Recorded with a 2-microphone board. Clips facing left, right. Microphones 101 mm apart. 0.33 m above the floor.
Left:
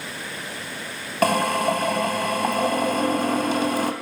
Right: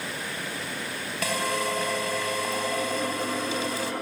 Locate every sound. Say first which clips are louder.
1.2 s a drill: left 8 dB; 50° left (ahead or behind), 2.5 m